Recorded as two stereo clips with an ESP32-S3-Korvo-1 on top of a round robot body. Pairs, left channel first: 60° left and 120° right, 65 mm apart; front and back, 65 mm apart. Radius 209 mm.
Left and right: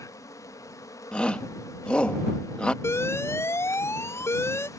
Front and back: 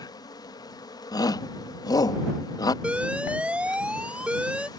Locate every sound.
0.0 s an insect: 20° left
1.1 s a shout: 15° right
2.8 s an alarm: 105° left